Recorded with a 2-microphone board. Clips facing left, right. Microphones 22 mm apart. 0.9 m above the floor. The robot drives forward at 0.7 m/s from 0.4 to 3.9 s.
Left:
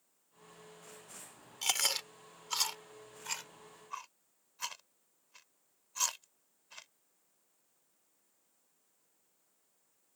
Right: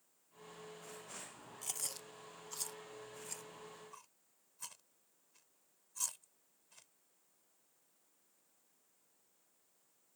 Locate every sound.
1.6 s chewing: 80° left; by 6.9 s 50° left (ahead or behind)